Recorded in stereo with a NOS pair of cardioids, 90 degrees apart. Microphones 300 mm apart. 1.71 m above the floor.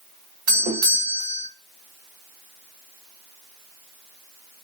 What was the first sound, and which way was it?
A doorbell, 65° right.